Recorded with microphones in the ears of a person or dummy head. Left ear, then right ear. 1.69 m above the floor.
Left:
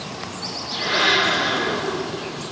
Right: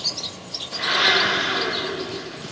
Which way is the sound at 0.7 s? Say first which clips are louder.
Even; 35° right (ahead or behind).